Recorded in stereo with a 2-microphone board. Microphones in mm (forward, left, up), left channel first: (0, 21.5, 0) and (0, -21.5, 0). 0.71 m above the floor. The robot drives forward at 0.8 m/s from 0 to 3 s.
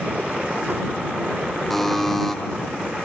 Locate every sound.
1.7 s a buzzer: 5° left (ahead or behind), 2.5 m